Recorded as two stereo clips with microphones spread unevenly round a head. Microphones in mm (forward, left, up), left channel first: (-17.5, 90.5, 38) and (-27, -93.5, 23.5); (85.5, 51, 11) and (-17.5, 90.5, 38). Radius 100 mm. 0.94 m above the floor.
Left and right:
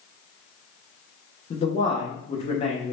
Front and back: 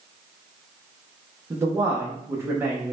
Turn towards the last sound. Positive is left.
turn(degrees=85)